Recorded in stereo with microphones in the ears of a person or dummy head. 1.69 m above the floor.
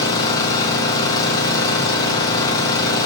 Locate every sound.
0.0 s an engine running: 20° left (ahead or behind), 1.3 m